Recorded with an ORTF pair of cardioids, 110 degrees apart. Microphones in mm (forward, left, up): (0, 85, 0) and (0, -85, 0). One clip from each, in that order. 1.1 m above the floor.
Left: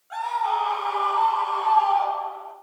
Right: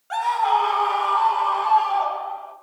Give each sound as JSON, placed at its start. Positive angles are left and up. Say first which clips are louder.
{"t": 0.1, "sound": "a scream", "louder": "right 5 dB", "azimuth_deg": -60, "distance_m": 2.5}